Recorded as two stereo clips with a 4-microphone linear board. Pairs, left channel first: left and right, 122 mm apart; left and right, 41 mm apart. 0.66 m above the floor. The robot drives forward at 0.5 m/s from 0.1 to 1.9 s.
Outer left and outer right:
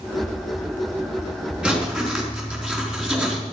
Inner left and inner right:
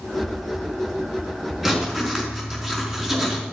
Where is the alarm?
No alarm in this recording.